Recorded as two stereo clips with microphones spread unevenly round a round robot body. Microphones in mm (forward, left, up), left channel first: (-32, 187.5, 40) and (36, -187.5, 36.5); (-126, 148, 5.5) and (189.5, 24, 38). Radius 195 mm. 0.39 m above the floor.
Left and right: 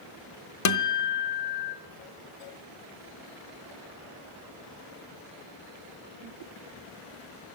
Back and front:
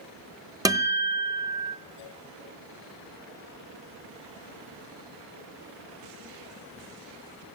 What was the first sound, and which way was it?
A guitar, 60° left.